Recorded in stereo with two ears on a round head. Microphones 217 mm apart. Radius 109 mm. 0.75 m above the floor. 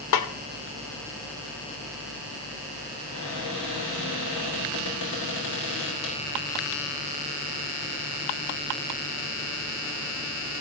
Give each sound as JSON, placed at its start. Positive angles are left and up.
{"t": 0.1, "sound": "a snare drum", "side_deg": 70, "distance_m": 0.9}
{"t": 3.1, "sound": "a cupboard door", "side_deg": 75, "distance_m": 4.0}